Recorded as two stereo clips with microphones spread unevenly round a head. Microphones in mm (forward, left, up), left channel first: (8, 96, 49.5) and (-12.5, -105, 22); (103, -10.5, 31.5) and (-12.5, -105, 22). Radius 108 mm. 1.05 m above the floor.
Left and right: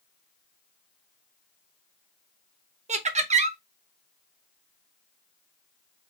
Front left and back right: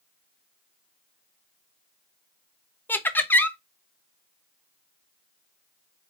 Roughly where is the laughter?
Ahead right.